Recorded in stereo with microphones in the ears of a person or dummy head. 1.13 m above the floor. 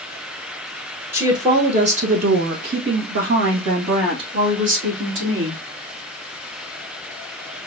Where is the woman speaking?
15° right (ahead or behind), 1.0 m; by 5.6 s 80° right, 3 m.